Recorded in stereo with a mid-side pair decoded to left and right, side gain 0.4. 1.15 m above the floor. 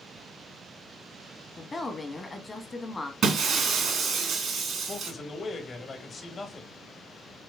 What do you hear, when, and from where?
1.6 s a woman speaking: 30° left, 1.4 m
3.2 s breaking glass: 65° right, 1.9 m
4.9 s a man speaking: 45° left, 1.7 m